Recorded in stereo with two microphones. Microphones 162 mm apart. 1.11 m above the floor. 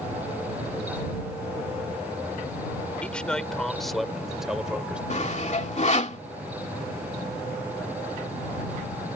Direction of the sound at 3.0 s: 5° left (ahead or behind).